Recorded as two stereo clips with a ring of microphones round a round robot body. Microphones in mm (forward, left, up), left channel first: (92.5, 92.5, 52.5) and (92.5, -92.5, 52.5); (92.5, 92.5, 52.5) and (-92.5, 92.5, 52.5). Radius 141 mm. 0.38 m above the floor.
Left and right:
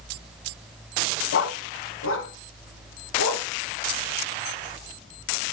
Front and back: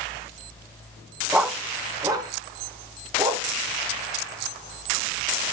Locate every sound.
1.3 s a dog barking: 95° left, 1.2 m; by 3.5 s 115° left, 3.5 m